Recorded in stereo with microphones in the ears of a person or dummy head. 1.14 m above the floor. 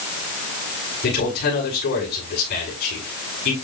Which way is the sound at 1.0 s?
60° left (ahead or behind).